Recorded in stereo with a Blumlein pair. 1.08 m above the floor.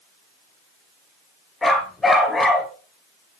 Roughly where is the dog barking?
Ahead.